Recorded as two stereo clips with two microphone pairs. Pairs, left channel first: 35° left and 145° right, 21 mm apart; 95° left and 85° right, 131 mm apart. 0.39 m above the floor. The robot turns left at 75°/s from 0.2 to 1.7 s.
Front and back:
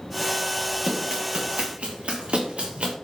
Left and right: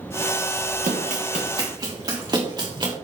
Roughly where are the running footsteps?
Right.